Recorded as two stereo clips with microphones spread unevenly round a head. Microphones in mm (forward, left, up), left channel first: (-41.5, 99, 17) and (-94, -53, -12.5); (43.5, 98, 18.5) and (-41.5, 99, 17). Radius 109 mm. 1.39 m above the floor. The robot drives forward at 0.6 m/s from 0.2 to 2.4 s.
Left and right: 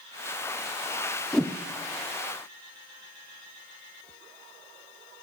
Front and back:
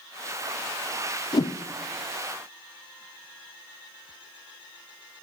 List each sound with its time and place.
1.3 s a whoosh: 25° right, 0.5 m; by 1.6 s 35° right, 0.5 m